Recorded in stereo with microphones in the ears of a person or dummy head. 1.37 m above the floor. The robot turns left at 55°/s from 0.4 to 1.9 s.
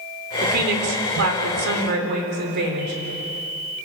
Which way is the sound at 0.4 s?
45° right.